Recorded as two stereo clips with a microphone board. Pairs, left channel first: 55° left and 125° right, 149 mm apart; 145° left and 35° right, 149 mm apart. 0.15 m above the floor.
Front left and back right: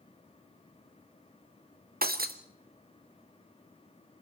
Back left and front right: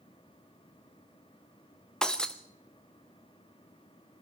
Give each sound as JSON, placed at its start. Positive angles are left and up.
{"t": 2.0, "sound": "breaking glass", "azimuth_deg": -130, "distance_m": 1.1}